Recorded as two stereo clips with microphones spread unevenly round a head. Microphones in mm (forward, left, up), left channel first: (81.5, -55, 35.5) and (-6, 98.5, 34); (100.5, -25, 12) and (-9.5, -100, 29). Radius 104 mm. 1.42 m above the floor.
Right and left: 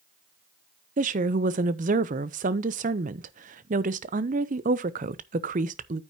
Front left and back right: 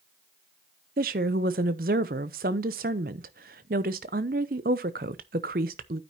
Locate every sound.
1.0 s a woman speaking: 170° left, 0.6 m